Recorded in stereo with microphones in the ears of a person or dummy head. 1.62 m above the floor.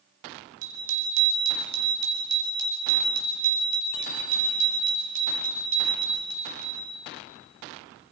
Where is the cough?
No cough in this recording.